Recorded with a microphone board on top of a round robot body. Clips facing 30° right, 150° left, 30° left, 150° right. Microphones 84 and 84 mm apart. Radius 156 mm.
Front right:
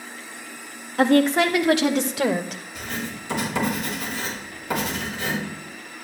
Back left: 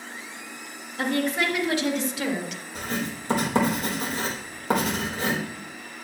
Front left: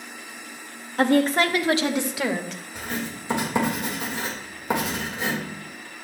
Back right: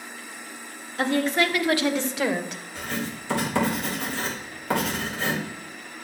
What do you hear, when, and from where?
1.0 s a woman speaking: 10° right, 1.8 m; by 2.6 s 75° right, 1.2 m
2.8 s writing: 100° left, 4 m